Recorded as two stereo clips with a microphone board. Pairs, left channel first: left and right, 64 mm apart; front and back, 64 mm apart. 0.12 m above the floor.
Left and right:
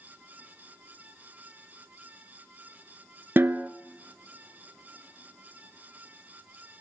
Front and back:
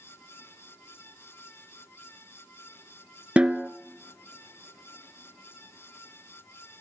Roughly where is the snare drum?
Behind right.